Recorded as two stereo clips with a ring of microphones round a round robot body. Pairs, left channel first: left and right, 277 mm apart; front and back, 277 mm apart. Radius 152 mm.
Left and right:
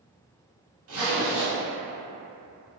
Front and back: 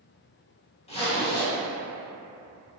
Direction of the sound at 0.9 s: 65° right.